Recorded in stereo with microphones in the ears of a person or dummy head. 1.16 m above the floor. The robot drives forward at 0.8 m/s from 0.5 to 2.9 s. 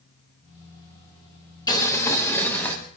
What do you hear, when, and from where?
1.7 s boiling: 20° left (ahead or behind), 1.3 m; by 2.8 s 15° left (ahead or behind), 2 m